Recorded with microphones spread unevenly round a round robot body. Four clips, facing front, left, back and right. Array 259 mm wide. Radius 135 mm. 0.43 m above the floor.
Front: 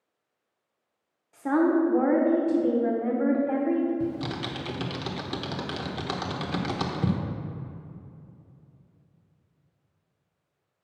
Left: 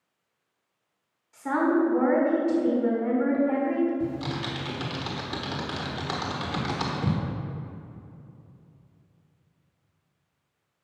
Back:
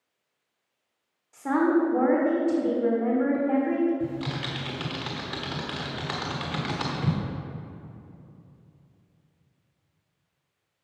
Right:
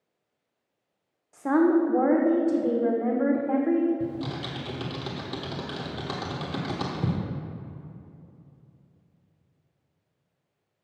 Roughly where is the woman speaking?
Right.